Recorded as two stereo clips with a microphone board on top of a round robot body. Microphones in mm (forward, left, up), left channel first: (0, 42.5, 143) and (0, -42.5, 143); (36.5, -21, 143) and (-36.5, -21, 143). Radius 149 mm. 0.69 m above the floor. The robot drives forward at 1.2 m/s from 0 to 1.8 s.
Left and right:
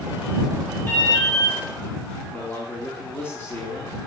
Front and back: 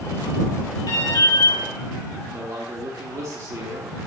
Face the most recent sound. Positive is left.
turn(degrees=150)